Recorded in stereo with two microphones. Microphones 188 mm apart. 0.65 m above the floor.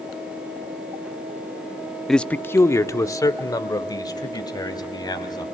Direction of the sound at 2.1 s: Centre (ahead or behind).